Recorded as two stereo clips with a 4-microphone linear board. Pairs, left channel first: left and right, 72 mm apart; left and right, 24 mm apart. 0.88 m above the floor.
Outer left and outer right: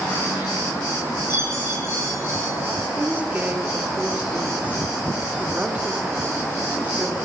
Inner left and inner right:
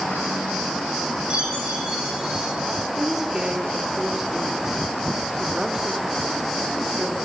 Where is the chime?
35° right (ahead or behind), 7 m.